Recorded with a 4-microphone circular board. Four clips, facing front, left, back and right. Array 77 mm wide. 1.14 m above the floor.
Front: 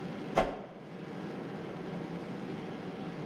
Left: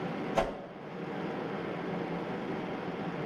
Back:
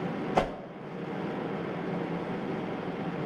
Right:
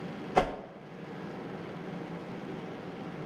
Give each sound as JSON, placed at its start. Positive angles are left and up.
{"t": 0.3, "sound": "a whoosh", "azimuth_deg": -135, "distance_m": 0.8}